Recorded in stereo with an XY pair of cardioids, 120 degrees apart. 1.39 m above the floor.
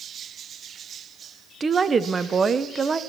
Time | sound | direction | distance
1.6 | a woman speaking | 30° right | 0.9 m